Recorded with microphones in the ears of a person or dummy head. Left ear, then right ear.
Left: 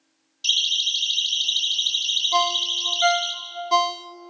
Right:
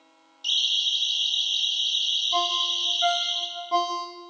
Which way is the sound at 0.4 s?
25° left (ahead or behind).